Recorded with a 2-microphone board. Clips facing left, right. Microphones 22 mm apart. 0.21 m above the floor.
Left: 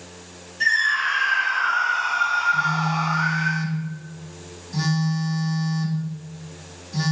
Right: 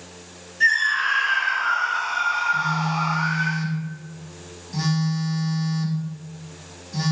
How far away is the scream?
About 1.8 m.